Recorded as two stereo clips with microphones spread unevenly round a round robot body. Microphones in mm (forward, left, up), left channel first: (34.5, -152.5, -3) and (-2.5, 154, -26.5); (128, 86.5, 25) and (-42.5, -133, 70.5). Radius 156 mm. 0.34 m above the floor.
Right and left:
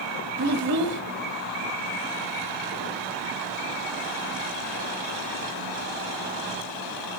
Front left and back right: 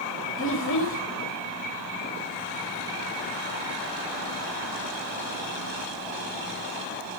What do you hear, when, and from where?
0.4 s a child speaking: 75° left, 0.9 m